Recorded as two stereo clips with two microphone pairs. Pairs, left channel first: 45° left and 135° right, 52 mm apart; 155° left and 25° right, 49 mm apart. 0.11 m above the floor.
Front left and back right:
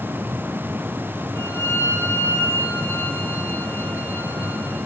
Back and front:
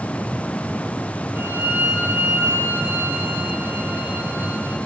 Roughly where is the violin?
Ahead.